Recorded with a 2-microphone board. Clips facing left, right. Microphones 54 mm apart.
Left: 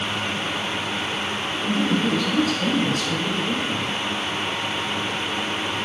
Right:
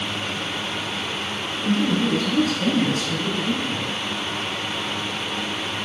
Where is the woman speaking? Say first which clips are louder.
Right 1 dB; 50° right (ahead or behind), 3 m; by 3.9 s 25° right (ahead or behind), 3 m.